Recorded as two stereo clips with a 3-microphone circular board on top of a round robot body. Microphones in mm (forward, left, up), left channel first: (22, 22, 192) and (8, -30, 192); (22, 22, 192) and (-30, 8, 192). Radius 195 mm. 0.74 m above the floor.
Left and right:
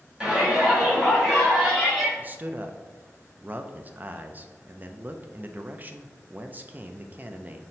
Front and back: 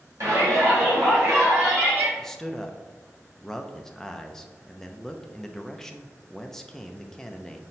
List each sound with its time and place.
0.2 s a shout: 175° left, 1.9 m; by 2.1 s 165° left, 3.5 m
2.2 s a man speaking: 65° right, 0.5 m